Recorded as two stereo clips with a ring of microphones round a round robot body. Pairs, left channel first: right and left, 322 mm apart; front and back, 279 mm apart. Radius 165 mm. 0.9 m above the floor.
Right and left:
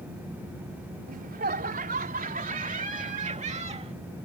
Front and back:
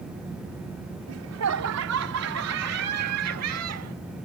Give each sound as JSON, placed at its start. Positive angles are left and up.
{"t": 1.1, "sound": "laughter", "azimuth_deg": 155}